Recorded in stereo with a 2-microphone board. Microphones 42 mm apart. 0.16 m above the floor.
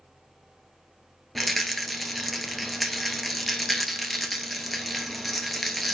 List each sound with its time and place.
1.4 s a rattle: centre (ahead or behind), 1.0 m